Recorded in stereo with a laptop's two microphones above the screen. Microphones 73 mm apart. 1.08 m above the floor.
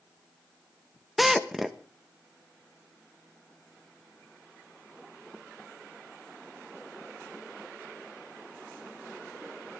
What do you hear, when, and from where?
1.2 s a drill: centre (ahead or behind), 1.3 m